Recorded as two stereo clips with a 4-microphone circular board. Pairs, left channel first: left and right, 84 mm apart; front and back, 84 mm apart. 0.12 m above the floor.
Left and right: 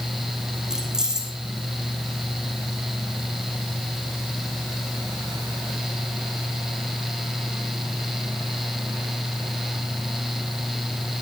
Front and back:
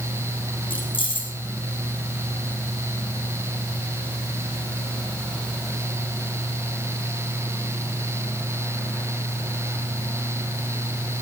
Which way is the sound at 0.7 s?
5° right.